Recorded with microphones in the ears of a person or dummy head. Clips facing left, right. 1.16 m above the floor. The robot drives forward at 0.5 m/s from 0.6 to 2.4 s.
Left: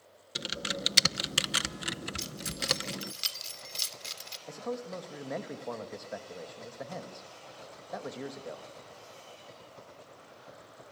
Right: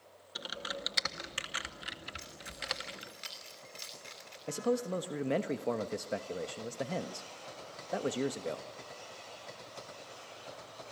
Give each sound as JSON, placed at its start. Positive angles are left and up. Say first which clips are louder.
{"t": 0.3, "sound": "typing on a keyboard", "louder": "left 5 dB", "side_deg": 40, "distance_m": 0.9}
{"t": 2.2, "sound": "keys jangling", "louder": "left 8 dB", "side_deg": 60, "distance_m": 2.5}
{"t": 4.5, "sound": "a man speaking", "louder": "right 5 dB", "side_deg": -45, "distance_m": 1.1}